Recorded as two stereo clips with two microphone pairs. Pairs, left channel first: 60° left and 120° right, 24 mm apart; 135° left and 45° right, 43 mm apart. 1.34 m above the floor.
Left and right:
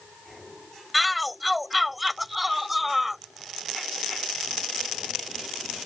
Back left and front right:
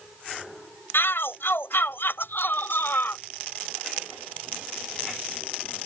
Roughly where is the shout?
Behind left.